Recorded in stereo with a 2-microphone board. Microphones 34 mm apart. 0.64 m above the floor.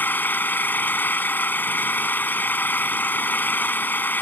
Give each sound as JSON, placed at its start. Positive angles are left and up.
{"t": 0.0, "sound": "an engine running", "side_deg": 70}